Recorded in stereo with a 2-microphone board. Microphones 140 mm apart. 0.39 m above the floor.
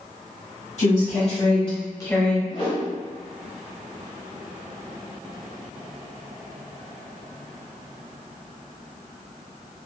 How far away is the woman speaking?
About 1.5 m.